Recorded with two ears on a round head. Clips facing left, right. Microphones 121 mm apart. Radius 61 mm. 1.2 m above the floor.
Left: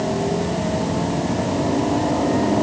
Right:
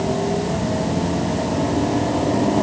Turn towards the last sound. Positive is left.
No sound to turn to.